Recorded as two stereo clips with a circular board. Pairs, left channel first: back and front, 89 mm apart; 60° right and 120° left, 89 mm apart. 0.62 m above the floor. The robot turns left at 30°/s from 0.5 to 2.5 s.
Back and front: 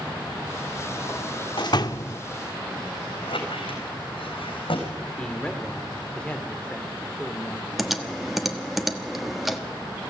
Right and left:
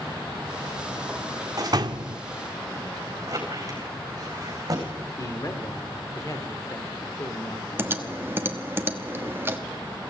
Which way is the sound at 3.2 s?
170° left.